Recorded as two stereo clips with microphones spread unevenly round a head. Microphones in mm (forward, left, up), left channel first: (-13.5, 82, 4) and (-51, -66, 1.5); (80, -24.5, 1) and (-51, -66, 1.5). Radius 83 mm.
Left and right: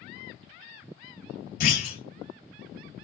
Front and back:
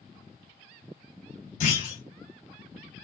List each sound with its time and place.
1.6 s a clunk: 50° left, 3 m